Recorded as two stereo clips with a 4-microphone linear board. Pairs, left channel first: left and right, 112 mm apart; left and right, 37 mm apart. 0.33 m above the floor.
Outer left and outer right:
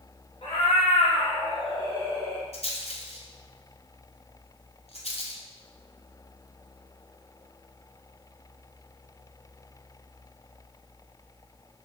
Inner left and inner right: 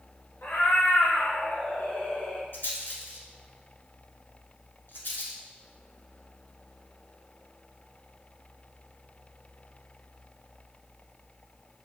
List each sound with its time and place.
0.4 s a cat meowing: 65° left (ahead or behind), 1.1 m; by 2.4 s 20° left (ahead or behind), 1.3 m
2.5 s a rattle: 70° left (ahead or behind), 1.0 m